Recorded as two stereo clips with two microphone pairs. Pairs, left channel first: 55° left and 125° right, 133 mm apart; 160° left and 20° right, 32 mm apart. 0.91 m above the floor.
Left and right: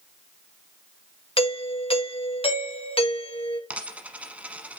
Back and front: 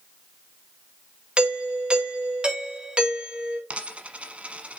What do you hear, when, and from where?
1.4 s a doorbell: 30° left, 2.0 m
3.7 s a dropped coin: 45° right, 1.2 m